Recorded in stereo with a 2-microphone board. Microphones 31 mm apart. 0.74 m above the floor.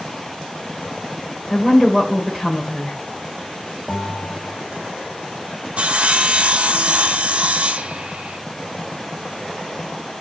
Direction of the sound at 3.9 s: 5° right (ahead or behind).